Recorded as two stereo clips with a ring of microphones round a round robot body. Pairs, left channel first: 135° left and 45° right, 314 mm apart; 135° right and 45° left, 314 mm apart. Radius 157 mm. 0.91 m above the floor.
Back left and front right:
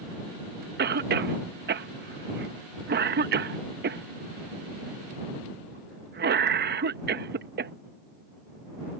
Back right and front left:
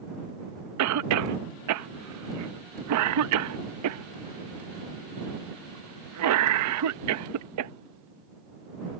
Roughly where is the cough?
Ahead.